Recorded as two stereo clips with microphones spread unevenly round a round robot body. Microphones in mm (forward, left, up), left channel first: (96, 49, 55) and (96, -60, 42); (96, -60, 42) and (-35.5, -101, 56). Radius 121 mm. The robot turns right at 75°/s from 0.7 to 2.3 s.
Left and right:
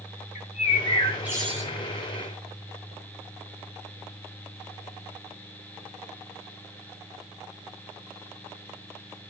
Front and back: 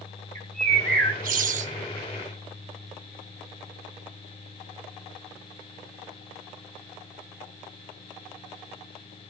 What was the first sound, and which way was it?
A bird, 140° left.